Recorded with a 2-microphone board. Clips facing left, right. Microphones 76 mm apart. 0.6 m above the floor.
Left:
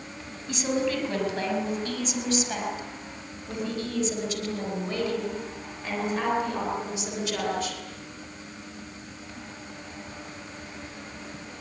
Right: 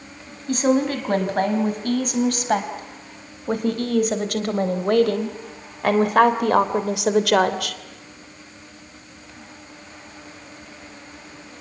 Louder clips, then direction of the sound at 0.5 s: Right 7 dB; 40° right (ahead or behind).